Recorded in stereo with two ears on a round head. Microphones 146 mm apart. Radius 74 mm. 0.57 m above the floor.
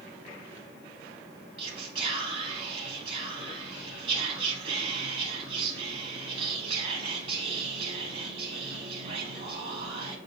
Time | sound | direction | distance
1.6 | whispering | 30° right (ahead or behind) | 1.0 m